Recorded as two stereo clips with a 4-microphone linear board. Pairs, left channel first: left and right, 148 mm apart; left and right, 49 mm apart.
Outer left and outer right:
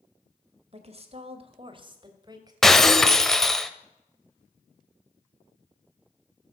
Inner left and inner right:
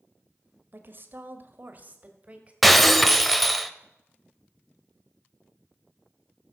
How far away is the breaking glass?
About 0.9 m.